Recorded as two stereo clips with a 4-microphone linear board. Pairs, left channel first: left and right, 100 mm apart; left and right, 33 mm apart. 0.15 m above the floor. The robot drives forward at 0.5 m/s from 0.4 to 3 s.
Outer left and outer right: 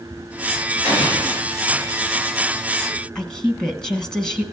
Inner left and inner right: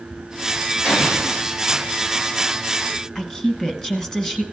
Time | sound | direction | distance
0.8 | an explosion | 25° right (ahead or behind) | 6.5 m
3.1 | a woman speaking | 10° left (ahead or behind) | 1.0 m